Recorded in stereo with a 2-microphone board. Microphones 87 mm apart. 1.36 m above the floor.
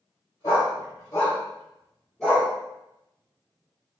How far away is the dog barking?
About 1.5 m.